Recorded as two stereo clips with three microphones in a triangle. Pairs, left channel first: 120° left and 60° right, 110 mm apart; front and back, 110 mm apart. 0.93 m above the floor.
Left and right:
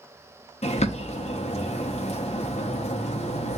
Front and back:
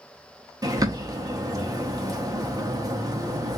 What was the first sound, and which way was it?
A bird, 125° left.